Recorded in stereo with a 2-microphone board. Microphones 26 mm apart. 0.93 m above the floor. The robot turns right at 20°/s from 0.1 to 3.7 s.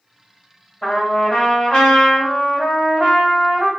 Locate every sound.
0.8 s a trumpet: 30° left, 1.9 m; by 3.7 s 90° left, 1.9 m